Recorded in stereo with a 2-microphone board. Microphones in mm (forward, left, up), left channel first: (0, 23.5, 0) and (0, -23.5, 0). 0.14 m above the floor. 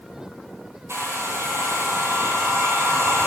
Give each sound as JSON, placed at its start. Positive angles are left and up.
{"t": 0.9, "sound": "a hair dryer", "side_deg": -75, "distance_m": 2.5}